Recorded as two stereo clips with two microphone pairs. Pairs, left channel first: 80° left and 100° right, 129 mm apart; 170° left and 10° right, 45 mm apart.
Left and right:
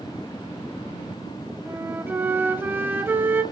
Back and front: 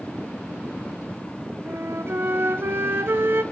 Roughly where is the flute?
Ahead right.